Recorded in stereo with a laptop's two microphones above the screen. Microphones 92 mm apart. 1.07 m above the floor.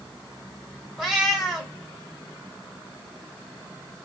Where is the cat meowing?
5° right (ahead or behind), 0.9 m.